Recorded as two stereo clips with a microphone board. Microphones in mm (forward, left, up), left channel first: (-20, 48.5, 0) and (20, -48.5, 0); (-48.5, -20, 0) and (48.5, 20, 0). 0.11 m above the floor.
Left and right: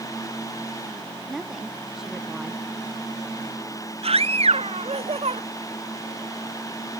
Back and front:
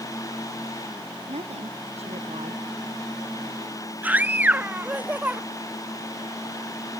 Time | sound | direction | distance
1.3 | a woman speaking | 15° left | ?
4.0 | a scream | 50° right | ?